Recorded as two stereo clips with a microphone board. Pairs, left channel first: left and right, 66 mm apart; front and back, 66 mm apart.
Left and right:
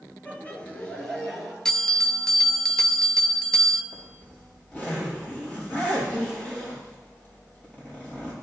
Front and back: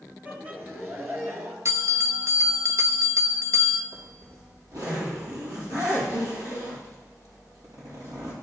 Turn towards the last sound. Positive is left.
turn(degrees=160)